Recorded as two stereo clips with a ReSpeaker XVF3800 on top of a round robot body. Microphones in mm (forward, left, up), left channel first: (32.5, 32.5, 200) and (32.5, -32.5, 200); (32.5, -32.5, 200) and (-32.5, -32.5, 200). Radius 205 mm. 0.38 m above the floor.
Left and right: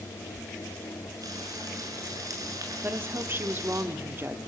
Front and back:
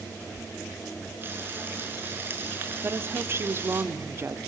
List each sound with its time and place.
1.2 s frying: 120° right, 6.5 m
2.8 s a woman speaking: 135° right, 1.6 m